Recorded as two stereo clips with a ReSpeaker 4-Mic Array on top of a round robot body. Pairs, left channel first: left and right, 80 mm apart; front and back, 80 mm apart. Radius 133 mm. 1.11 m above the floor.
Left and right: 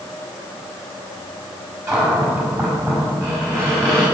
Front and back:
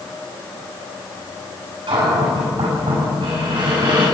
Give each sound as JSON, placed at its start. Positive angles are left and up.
{"t": 1.9, "sound": "a cupboard door", "azimuth_deg": -150, "distance_m": 6.5}